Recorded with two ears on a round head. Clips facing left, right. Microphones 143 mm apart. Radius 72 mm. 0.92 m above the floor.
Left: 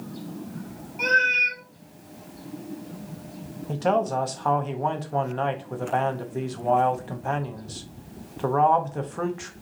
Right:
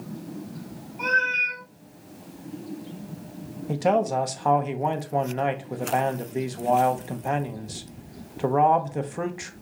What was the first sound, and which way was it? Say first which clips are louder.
A cat meowing: left 2 dB; 70° left (ahead or behind).